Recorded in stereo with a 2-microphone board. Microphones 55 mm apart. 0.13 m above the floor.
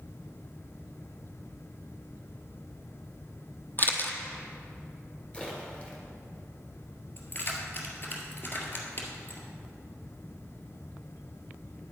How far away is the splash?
About 2.5 m.